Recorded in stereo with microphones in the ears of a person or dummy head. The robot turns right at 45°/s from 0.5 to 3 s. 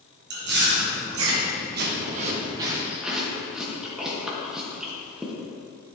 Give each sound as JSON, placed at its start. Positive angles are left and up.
{"t": 0.3, "sound": "chewing", "side_deg": -55, "distance_m": 1.3}